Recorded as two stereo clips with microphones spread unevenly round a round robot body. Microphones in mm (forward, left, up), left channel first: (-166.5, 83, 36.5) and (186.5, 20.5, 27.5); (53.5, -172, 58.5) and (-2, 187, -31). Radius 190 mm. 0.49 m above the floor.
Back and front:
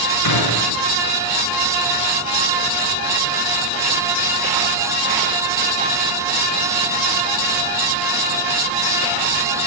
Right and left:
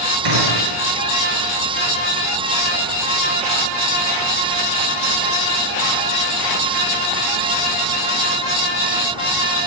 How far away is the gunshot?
About 6.5 m.